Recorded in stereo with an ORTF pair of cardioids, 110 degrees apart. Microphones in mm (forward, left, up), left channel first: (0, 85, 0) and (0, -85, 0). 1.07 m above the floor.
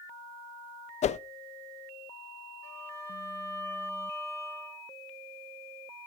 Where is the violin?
15° left, 3 m.